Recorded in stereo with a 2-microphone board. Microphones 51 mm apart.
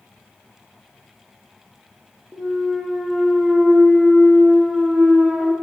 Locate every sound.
2.3 s a clunk: 10° right (ahead or behind), 0.7 m